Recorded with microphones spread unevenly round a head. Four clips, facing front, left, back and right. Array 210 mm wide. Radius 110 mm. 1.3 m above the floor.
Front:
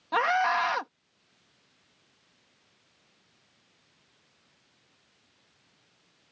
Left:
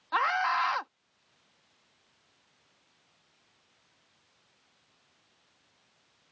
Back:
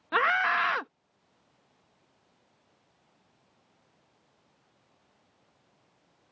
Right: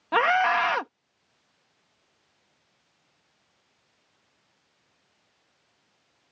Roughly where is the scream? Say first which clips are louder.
Right 6 dB, front 1 dB; right.